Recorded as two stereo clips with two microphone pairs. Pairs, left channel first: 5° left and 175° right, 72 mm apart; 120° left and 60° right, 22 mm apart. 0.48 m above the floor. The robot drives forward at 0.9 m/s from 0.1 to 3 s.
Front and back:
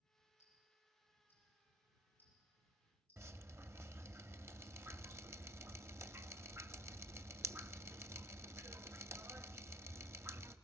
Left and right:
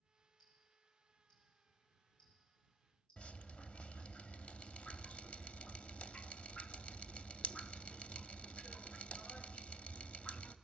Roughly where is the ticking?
Ahead left.